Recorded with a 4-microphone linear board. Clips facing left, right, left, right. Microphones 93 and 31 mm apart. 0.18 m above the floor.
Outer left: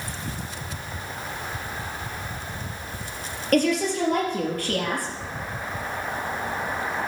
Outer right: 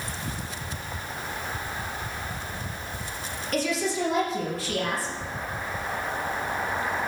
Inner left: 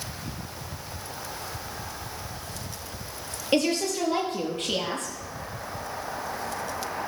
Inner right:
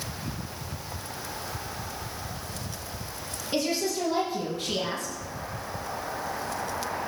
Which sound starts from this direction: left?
A woman speaking, at 3.5 s.